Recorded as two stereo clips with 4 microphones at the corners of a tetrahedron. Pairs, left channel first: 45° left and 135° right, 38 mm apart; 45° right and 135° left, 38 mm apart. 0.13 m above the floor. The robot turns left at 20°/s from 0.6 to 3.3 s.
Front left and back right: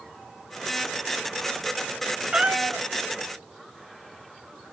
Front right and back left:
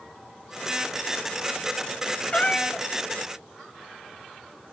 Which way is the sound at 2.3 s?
90° right.